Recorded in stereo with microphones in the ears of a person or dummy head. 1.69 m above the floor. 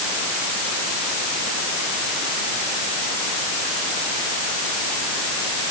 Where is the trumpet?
No trumpet in this recording.